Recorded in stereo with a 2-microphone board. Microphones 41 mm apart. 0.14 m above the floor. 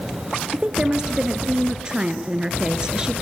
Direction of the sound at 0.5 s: 20° right (ahead or behind).